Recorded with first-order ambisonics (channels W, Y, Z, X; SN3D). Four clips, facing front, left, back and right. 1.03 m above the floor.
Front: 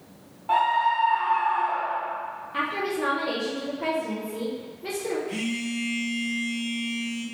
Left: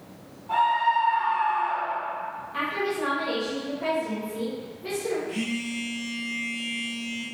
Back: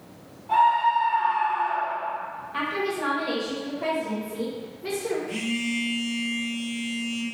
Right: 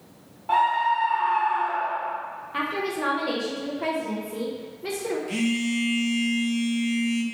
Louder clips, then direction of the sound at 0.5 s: Right 1 dB, back 2 dB; 45° right.